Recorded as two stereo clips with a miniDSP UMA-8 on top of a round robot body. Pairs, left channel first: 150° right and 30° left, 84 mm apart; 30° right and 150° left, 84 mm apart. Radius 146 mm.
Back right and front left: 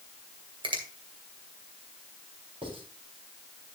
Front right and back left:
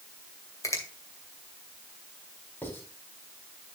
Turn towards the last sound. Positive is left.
turn(degrees=35)